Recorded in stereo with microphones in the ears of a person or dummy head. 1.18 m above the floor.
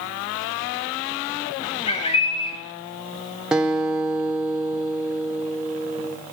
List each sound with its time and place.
1.9 s a bird: 35° left (ahead or behind), 3.5 m
3.5 s a guitar: 5° right (ahead or behind), 1.4 m